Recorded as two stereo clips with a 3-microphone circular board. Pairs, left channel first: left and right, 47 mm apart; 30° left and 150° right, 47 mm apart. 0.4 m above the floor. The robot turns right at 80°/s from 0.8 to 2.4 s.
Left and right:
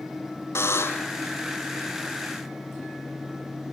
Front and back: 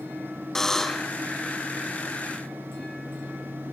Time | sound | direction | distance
0.6 | a buzzer | 110° left | 0.8 m